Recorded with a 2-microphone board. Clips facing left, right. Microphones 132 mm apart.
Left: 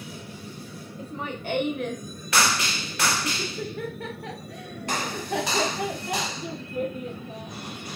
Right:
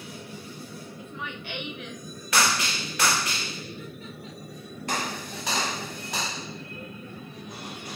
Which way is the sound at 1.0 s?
35° left (ahead or behind).